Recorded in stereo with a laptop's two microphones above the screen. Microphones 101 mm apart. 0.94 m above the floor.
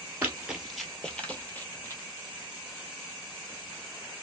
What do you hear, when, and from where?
0.2 s running footsteps: 15° right (ahead or behind), 0.9 m; by 2.0 s 25° left (ahead or behind), 1.4 m